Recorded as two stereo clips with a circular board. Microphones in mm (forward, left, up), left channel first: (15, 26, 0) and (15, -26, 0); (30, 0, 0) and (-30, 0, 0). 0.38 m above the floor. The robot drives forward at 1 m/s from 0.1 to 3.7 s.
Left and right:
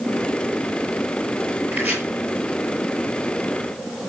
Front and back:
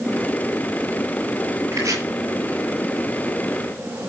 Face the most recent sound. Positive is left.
turn(degrees=-150)